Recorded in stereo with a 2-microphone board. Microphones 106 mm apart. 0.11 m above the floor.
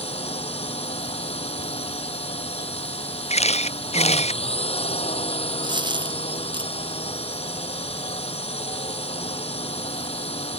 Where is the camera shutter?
85° left.